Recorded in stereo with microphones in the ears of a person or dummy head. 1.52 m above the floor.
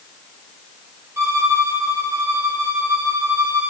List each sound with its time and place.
1.2 s a violin: 15° right (ahead or behind), 2.5 m